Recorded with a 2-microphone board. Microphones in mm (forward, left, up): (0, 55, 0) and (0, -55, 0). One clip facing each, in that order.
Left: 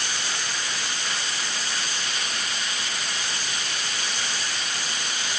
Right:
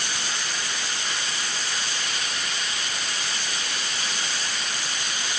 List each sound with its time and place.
Only background noise.